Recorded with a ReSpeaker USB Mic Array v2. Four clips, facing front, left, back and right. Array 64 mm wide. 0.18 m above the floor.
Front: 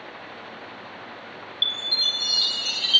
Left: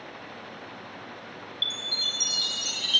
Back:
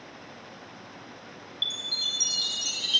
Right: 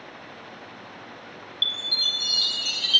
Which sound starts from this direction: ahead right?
A chime, at 1.6 s.